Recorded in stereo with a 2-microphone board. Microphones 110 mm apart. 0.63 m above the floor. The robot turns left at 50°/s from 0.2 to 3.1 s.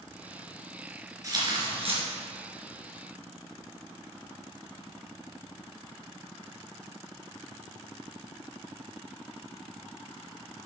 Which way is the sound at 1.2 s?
30° right.